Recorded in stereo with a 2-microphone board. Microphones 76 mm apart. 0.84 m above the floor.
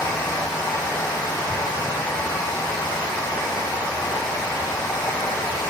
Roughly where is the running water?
Left.